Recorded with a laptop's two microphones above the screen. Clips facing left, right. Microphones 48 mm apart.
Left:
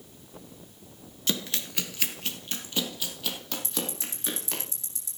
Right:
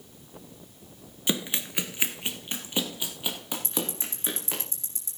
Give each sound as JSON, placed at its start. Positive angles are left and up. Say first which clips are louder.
{"t": 1.3, "sound": "running footsteps", "louder": "right 2 dB", "side_deg": -15, "distance_m": 1.0}
{"t": 3.6, "sound": "ticking", "louder": "right 3 dB", "side_deg": -35, "distance_m": 4.5}